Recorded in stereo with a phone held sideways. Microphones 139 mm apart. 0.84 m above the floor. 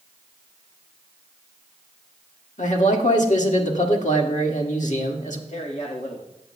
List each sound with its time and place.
2.6 s a man speaking: 65° left (ahead or behind), 1.7 m
5.5 s a man speaking: 60° left (ahead or behind), 1.5 m